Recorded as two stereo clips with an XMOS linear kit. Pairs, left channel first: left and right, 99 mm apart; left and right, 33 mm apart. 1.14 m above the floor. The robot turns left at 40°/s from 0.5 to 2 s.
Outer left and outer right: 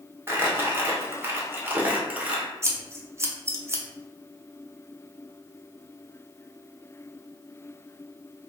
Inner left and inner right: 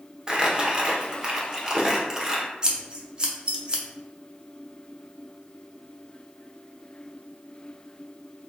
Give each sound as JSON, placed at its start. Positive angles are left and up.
{"t": 0.3, "sound": "crumpling", "side_deg": -25, "distance_m": 0.6}
{"t": 2.6, "sound": "scissors", "side_deg": -30, "distance_m": 0.5}